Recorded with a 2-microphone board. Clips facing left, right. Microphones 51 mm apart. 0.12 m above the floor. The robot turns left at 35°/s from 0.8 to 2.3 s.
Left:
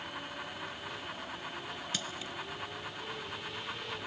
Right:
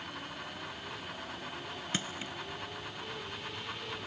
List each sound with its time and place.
1.9 s crushing: 30° right (ahead or behind); by 2.3 s 35° right (ahead or behind)